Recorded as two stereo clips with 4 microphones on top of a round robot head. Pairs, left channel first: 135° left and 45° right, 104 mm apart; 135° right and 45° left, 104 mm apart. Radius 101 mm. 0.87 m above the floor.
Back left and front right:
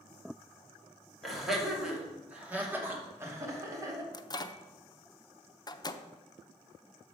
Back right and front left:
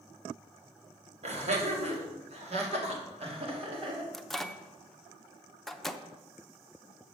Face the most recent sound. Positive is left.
turn(degrees=140)